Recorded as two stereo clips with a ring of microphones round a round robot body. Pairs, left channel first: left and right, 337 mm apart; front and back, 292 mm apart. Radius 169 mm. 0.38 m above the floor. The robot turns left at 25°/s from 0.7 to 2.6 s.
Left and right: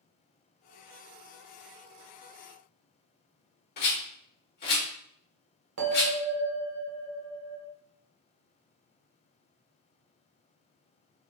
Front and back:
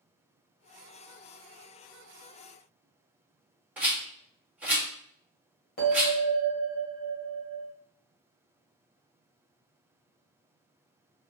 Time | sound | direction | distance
3.8 | a rattle | 100° left | 1.5 m
5.8 | a bell | 55° right | 1.3 m